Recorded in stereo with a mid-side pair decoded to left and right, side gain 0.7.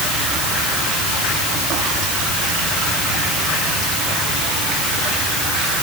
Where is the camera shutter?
I don't hear a camera shutter.